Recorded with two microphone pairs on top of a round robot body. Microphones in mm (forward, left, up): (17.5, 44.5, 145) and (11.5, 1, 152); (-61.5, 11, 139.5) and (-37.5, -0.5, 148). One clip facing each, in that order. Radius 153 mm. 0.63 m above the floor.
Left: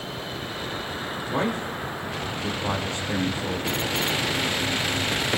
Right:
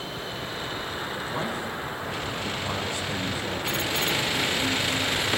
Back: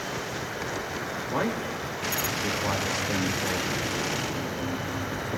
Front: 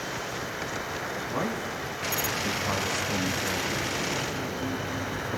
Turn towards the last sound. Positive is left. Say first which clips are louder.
# left 7 dB, back 4 dB
turn(degrees=125)